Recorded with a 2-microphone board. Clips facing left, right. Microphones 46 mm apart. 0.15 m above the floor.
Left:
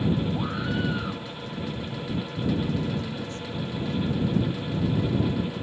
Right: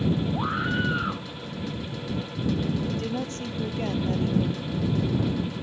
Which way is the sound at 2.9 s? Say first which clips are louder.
Right 2 dB; 70° right (ahead or behind).